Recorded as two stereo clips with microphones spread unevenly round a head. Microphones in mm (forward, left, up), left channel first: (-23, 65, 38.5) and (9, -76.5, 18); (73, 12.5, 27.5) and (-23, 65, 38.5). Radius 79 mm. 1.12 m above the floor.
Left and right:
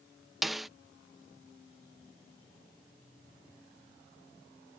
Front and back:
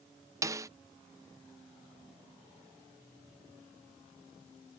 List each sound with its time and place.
0.4 s a snare drum: 155° right